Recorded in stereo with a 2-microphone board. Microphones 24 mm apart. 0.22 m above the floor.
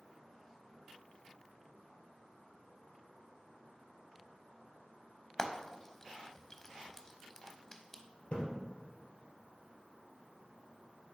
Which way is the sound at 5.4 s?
20° left (ahead or behind).